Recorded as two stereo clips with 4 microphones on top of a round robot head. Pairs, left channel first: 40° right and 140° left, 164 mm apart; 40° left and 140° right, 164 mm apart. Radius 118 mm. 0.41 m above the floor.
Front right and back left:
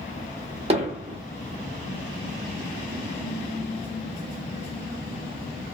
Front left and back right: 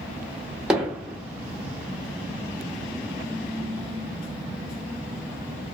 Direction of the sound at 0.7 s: 140° left.